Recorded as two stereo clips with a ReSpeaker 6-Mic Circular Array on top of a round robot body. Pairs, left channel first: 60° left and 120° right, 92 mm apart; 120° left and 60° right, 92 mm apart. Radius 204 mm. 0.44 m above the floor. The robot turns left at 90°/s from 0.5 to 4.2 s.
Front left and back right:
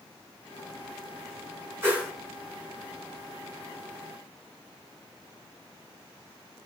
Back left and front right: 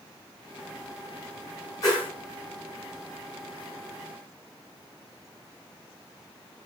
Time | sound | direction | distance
1.8 | a whoosh | 175° left | 5 m